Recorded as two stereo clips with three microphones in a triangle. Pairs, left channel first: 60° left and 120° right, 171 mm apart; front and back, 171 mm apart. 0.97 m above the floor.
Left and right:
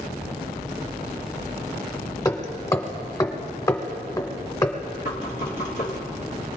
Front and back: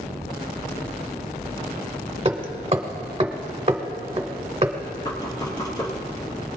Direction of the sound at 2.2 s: 130° left.